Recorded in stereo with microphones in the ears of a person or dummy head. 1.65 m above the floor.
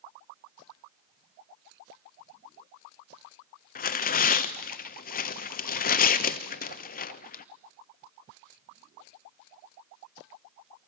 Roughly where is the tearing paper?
Left.